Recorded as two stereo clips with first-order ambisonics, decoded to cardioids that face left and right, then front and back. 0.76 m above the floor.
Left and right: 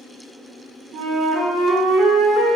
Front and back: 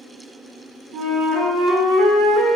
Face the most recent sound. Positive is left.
turn(degrees=-145)